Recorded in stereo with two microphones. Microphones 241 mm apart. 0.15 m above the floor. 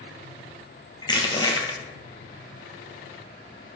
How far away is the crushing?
About 1.6 m.